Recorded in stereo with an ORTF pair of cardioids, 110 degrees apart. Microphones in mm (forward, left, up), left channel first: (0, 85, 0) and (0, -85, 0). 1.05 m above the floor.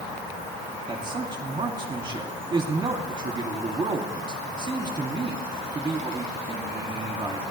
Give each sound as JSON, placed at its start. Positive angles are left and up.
{"t": 0.9, "sound": "a man speaking", "azimuth_deg": -25, "distance_m": 1.9}